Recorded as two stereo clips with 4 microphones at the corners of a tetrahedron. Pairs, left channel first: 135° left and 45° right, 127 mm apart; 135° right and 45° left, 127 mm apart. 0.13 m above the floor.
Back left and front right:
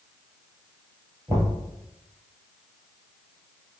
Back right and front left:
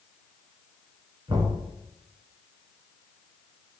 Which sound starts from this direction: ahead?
Knocking, at 1.3 s.